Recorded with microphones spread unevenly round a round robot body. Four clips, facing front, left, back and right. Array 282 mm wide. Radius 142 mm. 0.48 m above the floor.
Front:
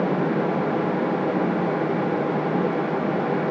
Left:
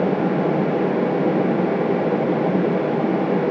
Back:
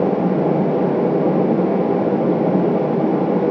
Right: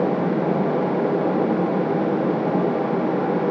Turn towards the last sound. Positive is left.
No sound to turn to.